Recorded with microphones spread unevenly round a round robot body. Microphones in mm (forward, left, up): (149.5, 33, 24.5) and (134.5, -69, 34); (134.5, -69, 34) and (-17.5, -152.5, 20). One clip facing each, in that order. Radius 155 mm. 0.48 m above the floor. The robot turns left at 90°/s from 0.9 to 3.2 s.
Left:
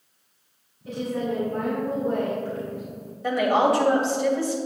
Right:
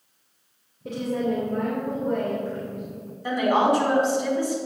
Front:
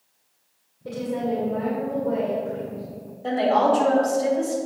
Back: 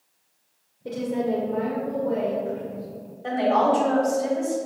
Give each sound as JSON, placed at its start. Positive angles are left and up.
{"t": 0.8, "sound": "a woman speaking", "azimuth_deg": -90, "distance_m": 1.8}
{"t": 3.2, "sound": "a woman speaking", "azimuth_deg": 110, "distance_m": 2.0}